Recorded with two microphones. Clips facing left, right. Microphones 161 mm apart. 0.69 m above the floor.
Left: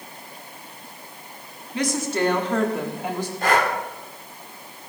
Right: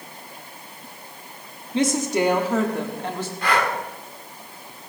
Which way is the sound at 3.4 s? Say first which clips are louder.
Left 2 dB; 45° left (ahead or behind).